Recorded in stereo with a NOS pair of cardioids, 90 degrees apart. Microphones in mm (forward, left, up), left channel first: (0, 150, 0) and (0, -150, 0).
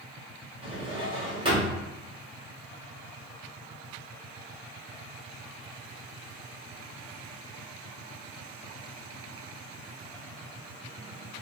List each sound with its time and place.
0.6 s a drawer: 20° right, 1.7 m